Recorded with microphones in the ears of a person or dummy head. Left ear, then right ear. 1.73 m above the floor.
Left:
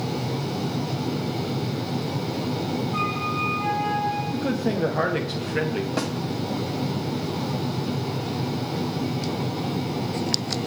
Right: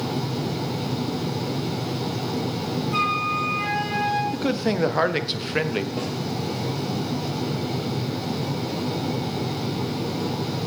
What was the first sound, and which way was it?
A flute, 55° right (ahead or behind).